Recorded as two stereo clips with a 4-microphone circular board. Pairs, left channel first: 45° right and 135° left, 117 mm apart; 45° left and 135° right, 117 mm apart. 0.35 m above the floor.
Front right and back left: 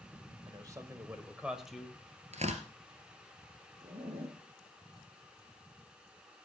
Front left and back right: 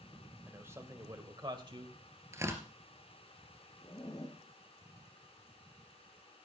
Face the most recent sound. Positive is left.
turn(degrees=105)